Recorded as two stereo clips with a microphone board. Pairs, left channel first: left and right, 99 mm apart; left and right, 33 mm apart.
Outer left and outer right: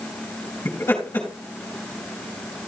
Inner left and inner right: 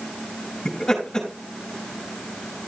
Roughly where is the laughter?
Left.